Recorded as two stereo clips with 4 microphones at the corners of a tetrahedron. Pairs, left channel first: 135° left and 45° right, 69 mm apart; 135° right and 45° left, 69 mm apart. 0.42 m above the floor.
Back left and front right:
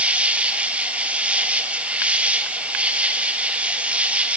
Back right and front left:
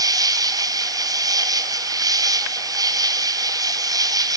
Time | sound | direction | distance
0.0 | an insect | 25° left | 1.1 m